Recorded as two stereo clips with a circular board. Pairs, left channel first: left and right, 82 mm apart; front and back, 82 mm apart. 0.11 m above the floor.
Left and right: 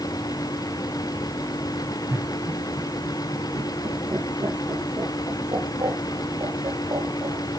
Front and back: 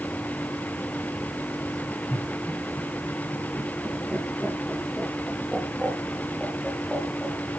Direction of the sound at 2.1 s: 40° right.